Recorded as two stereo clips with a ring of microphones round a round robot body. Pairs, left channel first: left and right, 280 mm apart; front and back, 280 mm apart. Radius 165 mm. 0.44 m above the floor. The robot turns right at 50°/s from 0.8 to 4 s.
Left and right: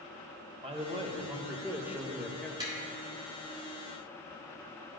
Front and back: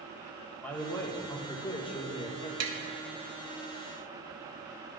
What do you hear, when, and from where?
0.6 s a man speaking: 70° right, 0.8 m; by 2.5 s 15° left, 0.8 m
2.6 s tapping: 165° right, 0.8 m; by 2.8 s 160° right, 0.8 m